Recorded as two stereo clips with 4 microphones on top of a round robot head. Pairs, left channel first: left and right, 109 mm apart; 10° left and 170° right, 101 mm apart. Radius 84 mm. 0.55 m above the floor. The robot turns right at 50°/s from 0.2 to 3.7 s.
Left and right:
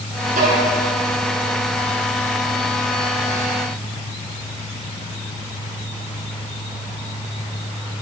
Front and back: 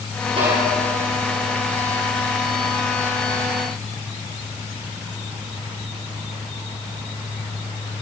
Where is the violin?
120° right, 9 m; by 0.6 s 105° right, 9 m.